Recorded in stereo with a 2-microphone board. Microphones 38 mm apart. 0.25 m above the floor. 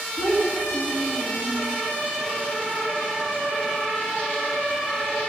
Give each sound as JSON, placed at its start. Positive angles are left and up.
{"t": 0.2, "sound": "a child speaking", "side_deg": -45, "distance_m": 1.8}